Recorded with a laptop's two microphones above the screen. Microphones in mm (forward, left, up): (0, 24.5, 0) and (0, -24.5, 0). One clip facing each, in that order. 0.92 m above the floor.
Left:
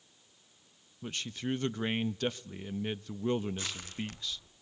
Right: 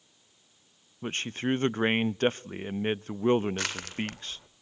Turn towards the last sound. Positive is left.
turn(degrees=-75)  # may be behind; listen again after turning